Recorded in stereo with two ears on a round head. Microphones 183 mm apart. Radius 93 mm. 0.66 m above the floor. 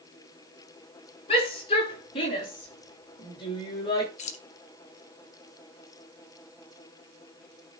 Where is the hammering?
I don't hear hammering.